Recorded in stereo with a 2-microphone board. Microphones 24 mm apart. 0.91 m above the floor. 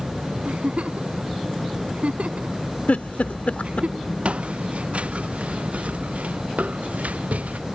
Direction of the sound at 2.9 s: 85° left.